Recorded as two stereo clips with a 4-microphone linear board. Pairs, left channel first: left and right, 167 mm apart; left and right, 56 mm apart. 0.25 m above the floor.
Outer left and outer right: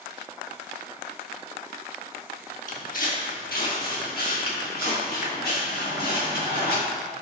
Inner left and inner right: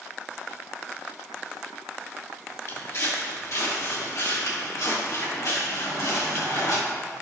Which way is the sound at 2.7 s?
55° left (ahead or behind).